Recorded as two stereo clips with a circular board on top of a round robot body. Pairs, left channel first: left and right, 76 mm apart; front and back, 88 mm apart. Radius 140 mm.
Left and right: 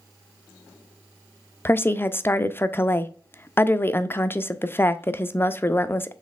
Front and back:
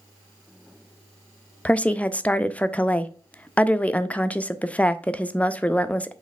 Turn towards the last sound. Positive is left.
turn(degrees=60)